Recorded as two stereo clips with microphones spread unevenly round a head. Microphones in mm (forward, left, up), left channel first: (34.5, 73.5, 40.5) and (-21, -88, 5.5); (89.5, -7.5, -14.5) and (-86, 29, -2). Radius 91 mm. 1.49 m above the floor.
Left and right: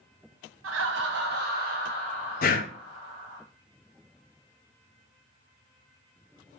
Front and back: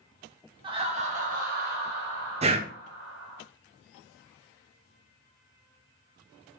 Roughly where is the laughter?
Behind right.